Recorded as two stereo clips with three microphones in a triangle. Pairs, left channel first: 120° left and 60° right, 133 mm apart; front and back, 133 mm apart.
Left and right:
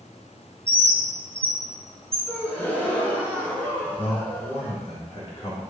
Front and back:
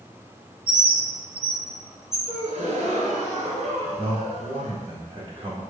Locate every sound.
0.7 s a bird: 5° left, 1.1 m
2.3 s a gasp: 160° right, 0.9 m
4.0 s a man speaking: 145° left, 1.8 m